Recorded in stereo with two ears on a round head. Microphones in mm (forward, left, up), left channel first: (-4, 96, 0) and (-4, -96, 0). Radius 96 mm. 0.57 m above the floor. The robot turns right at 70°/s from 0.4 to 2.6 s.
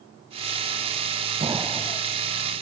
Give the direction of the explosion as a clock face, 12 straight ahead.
1 o'clock.